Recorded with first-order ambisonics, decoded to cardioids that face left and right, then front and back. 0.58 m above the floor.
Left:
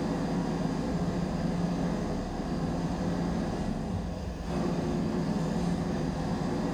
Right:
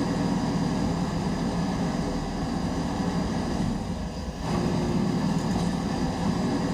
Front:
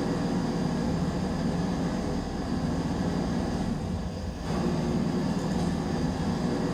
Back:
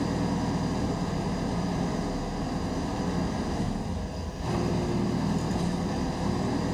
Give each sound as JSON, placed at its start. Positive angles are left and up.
{"t": 0.0, "sound": "an engine running", "azimuth_deg": -120, "distance_m": 2.0}